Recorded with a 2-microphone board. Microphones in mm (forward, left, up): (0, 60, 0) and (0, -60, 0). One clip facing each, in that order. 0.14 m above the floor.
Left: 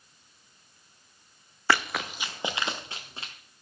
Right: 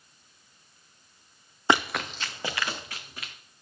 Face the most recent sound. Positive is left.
turn(degrees=30)  # may be behind; listen again after turning